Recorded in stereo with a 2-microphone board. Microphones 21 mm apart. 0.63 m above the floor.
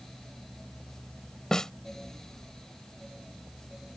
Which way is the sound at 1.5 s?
25° left (ahead or behind).